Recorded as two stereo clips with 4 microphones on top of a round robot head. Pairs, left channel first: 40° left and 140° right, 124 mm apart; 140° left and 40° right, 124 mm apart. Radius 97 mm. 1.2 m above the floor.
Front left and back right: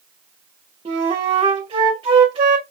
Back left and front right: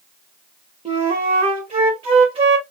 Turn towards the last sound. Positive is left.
turn(degrees=-85)